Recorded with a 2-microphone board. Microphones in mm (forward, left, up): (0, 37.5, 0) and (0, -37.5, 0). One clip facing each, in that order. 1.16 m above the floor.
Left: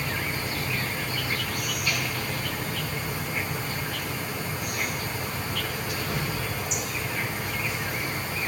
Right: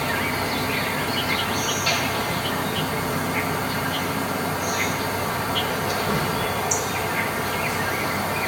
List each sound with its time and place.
0.0 s an insect: 70° right (ahead or behind), 1.8 m